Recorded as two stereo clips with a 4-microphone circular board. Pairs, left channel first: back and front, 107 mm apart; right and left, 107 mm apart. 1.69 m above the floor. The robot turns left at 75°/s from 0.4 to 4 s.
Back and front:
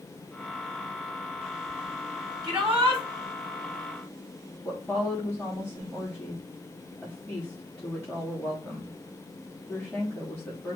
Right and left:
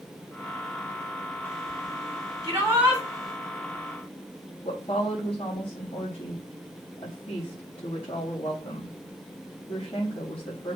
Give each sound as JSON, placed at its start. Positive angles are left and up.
{"t": 2.4, "sound": "a shout", "azimuth_deg": 45, "distance_m": 3.5}
{"t": 4.6, "sound": "a woman speaking", "azimuth_deg": -100, "distance_m": 3.5}